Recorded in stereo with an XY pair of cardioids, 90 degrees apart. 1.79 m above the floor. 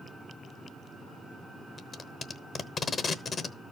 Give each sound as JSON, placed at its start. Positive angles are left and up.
{"t": 1.8, "sound": "tape being pulled", "azimuth_deg": 50, "distance_m": 0.9}